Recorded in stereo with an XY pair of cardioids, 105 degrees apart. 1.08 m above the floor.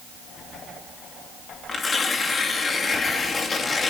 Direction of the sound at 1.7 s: 35° left.